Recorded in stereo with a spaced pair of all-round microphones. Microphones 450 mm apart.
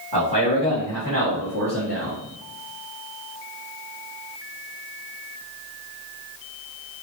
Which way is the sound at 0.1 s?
55° right (ahead or behind).